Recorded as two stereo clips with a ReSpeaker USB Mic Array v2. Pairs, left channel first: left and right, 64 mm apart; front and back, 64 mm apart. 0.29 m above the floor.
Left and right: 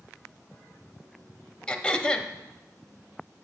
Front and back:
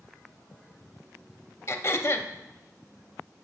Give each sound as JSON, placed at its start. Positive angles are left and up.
{"t": 1.7, "sound": "throat clearing", "azimuth_deg": 20, "distance_m": 0.5}